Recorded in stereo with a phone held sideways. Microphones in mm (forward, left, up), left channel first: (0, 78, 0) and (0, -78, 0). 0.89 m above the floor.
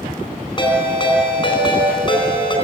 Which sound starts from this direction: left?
A ringtone, at 0.6 s.